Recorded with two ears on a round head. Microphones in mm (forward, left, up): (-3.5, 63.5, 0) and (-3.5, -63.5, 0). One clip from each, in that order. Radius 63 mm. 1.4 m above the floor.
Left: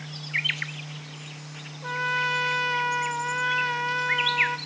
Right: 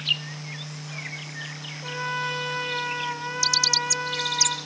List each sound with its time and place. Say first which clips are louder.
1.8 s a trumpet: left 3 dB; 20° left (ahead or behind), 0.8 m